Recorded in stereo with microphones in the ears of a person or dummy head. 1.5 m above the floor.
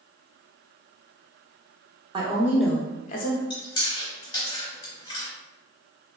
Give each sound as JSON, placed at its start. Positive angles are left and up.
{"t": 2.1, "sound": "a woman speaking", "side_deg": -20, "distance_m": 0.7}
{"t": 3.5, "sound": "chewing", "side_deg": 30, "distance_m": 0.8}